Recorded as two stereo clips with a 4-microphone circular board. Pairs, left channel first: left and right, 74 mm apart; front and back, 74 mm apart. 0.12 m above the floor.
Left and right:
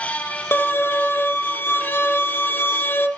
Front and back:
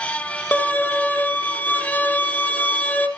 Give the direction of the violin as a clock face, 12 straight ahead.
10 o'clock.